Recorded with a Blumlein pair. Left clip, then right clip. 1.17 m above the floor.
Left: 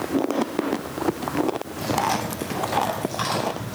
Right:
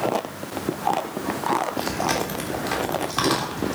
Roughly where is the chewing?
Ahead right.